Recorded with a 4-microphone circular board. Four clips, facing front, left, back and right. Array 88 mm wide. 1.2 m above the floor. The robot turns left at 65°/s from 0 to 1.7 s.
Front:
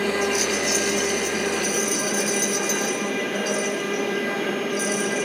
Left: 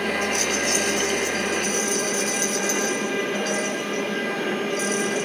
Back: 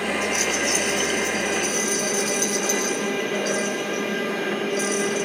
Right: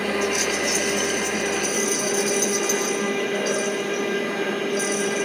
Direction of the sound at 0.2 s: 90° right.